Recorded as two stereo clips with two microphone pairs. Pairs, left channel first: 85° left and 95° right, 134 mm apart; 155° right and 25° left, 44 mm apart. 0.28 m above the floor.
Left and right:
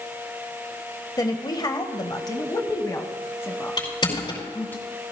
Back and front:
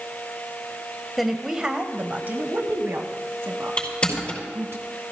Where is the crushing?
140° left, 5 m.